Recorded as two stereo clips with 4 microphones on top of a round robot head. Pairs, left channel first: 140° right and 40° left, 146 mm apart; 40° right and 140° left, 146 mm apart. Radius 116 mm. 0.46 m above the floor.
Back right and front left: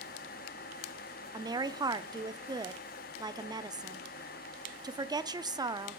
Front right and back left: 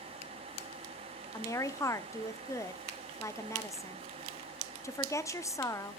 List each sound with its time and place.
1.3 s a woman speaking: 10° left, 0.8 m